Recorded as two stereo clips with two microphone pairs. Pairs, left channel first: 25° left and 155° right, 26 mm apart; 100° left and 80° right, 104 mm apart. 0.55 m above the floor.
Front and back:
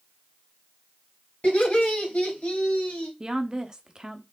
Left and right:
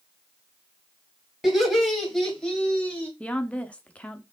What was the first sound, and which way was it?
Laughter, 5° left.